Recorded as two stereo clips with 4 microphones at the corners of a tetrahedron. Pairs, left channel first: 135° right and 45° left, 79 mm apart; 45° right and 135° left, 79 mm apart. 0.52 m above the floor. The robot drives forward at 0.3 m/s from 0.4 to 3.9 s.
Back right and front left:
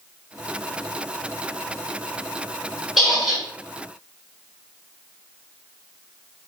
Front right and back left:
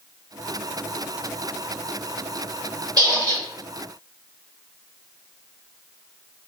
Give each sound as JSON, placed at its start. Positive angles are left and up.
{"t": 3.0, "sound": "a squeak", "azimuth_deg": 130, "distance_m": 1.4}